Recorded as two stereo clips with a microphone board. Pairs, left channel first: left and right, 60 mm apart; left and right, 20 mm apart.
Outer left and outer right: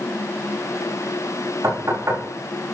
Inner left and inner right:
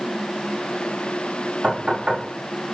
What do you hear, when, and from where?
1.6 s knocking: 50° right (ahead or behind), 6.5 m